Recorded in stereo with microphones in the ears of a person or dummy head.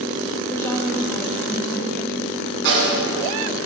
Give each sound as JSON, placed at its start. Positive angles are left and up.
{"t": 0.5, "sound": "a woman speaking", "side_deg": 5, "distance_m": 1.6}
{"t": 2.6, "sound": "a snare drum", "side_deg": -65, "distance_m": 2.5}